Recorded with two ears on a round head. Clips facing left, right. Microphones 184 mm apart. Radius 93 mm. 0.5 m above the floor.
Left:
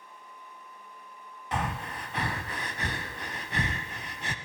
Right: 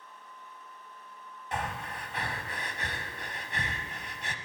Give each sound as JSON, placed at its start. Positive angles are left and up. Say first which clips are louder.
{"t": 1.5, "sound": "breathing", "louder": "left 3 dB", "side_deg": 60, "distance_m": 0.7}